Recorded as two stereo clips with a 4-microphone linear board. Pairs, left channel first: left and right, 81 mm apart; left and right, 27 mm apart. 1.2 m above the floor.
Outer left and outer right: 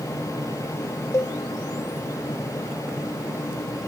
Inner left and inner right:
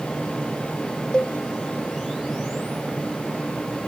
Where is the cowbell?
35° left (ahead or behind), 0.8 m.